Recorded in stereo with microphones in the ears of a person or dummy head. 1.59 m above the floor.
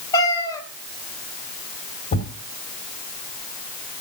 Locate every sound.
0.1 s a cat meowing: 25° left (ahead or behind), 3 m
2.1 s a thud: 45° left (ahead or behind), 3 m